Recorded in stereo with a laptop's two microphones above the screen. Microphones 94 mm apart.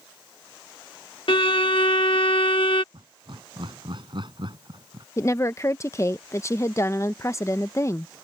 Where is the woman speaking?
30° left (ahead or behind).